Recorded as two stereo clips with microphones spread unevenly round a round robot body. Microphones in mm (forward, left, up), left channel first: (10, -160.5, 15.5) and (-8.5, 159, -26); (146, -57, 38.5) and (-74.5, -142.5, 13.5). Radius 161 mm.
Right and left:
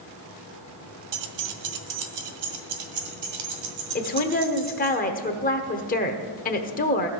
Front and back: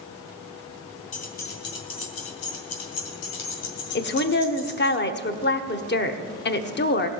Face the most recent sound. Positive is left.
turn(degrees=-20)